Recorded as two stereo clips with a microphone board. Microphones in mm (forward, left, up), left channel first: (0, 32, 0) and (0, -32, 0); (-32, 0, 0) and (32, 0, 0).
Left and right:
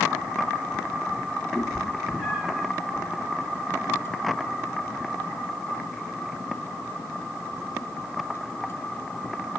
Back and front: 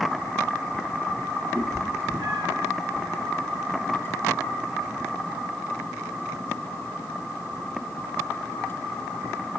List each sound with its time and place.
1.6 s a cat meowing: 10° left, 2.5 m; by 2.7 s 5° right, 3.5 m